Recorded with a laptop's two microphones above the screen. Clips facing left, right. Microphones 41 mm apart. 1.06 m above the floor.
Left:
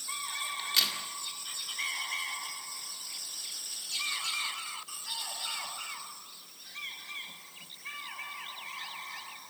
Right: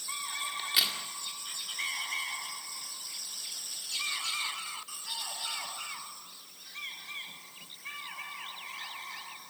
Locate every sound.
0.6 s a crack: 10° right (ahead or behind), 2 m